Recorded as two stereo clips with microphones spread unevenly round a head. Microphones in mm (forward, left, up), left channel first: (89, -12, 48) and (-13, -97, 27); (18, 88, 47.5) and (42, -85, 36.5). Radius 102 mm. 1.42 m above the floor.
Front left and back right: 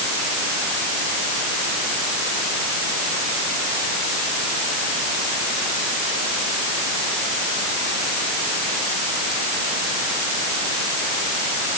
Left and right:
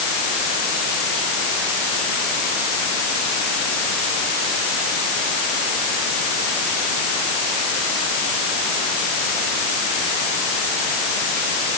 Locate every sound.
Only background noise.